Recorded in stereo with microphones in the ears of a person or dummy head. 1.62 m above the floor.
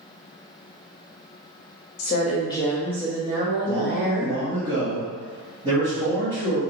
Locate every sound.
2.0 s a woman speaking: 50° left (ahead or behind), 0.8 m; by 4.3 s 55° right (ahead or behind), 1.5 m
3.6 s a man speaking: 30° right (ahead or behind), 1.4 m